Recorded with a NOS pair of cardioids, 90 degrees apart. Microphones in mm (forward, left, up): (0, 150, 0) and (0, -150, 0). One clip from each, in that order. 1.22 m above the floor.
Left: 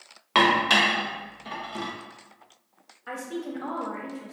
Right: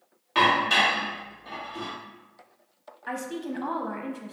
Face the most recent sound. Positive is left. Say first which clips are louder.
# right 1 dB
turn(degrees=-15)